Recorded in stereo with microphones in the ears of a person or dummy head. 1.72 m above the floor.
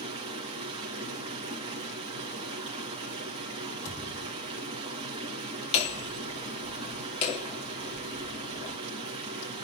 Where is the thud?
45° left (ahead or behind), 6.5 m.